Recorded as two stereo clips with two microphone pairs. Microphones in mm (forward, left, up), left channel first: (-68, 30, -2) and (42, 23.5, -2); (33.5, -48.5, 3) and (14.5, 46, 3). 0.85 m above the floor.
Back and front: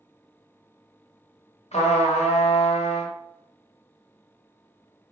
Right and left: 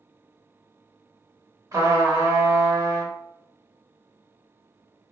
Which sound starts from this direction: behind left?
A trumpet, at 1.7 s.